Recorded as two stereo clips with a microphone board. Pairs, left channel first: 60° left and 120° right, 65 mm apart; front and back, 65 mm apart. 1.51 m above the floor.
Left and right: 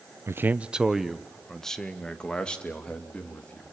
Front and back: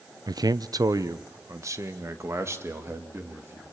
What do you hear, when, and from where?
0.3 s a man speaking: 170° right, 0.5 m; by 3.7 s 130° left, 3 m